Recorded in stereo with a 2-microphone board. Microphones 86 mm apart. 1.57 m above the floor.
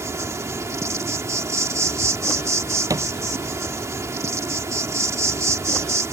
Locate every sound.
0.0 s an insect: 35° right (ahead or behind)
2.9 s a thud: 40° right (ahead or behind)